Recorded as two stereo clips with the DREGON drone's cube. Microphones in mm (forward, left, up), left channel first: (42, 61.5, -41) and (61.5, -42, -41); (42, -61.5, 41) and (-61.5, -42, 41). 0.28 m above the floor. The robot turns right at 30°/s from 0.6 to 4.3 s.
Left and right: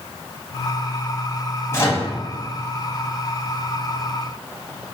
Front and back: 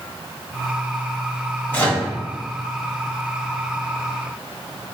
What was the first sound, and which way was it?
A microwave, 50° left.